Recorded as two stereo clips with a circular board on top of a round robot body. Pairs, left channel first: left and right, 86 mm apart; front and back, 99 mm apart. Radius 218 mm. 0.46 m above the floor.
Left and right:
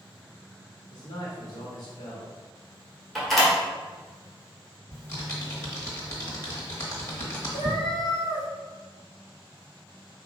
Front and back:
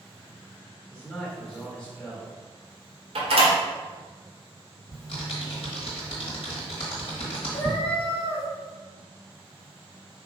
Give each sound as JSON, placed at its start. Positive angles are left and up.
{"t": 0.9, "sound": "a man speaking", "azimuth_deg": 80, "distance_m": 1.6}
{"t": 3.1, "sound": "a door slam", "azimuth_deg": 175, "distance_m": 1.4}
{"t": 4.9, "sound": "typing on a keyboard", "azimuth_deg": 30, "distance_m": 1.0}
{"t": 7.5, "sound": "a cat meowing", "azimuth_deg": 75, "distance_m": 0.7}